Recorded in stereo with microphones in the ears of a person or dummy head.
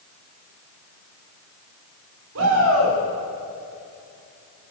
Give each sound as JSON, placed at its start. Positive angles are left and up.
{"t": 2.4, "sound": "a shout", "side_deg": -75, "distance_m": 4.0}